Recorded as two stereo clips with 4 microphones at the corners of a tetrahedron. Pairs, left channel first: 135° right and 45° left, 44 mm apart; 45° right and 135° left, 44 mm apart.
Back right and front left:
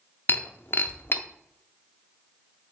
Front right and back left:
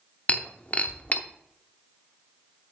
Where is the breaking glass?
100° right, 0.7 m.